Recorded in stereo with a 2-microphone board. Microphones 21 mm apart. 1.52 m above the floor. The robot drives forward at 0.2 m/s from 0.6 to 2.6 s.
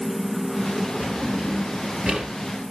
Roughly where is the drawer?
Right.